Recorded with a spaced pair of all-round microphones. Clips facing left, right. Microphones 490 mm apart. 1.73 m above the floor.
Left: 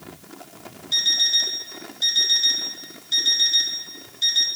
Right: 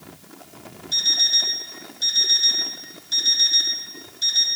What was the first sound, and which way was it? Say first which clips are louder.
An alarm clock: right 1 dB; 30° right (ahead or behind).